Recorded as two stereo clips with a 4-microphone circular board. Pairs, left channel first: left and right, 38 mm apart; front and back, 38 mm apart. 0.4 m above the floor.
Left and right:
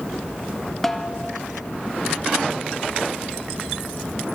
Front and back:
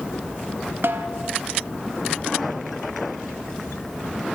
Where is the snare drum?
170° left, 0.6 m.